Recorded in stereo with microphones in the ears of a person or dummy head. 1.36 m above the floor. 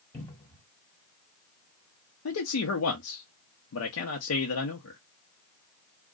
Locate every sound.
0.1 s a cupboard door: 20° left (ahead or behind), 1.5 m
2.2 s a man speaking: 75° left (ahead or behind), 0.8 m